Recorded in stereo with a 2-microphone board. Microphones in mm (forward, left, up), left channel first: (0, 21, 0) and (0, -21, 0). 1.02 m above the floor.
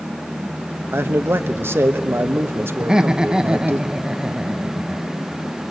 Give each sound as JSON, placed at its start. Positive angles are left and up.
{"t": 0.9, "sound": "a man speaking", "side_deg": -60, "distance_m": 1.0}
{"t": 2.8, "sound": "laughter", "side_deg": -15, "distance_m": 1.1}